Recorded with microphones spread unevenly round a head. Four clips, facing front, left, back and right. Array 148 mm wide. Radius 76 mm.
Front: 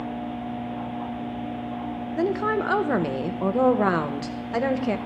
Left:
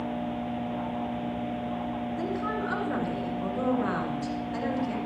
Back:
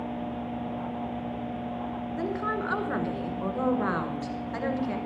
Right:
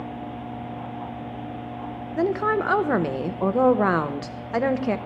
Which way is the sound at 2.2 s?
55° right.